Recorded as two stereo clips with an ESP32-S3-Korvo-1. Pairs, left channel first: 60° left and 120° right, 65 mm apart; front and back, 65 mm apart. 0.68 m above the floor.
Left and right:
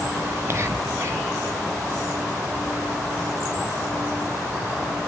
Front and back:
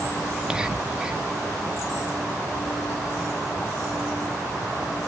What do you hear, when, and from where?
0.3 s whispering: 105° right, 0.8 m